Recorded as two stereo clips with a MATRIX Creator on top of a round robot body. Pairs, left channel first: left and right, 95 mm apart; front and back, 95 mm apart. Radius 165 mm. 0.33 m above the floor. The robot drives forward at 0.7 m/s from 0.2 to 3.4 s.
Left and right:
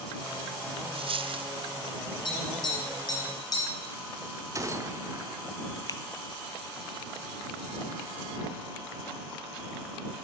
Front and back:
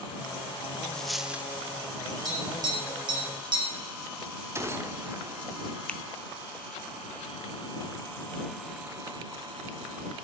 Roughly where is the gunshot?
Behind right.